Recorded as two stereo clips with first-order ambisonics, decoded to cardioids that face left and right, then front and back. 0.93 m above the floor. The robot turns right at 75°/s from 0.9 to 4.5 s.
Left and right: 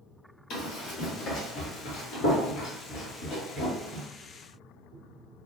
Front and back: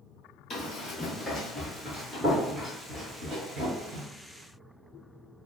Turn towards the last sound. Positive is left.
turn(degrees=-145)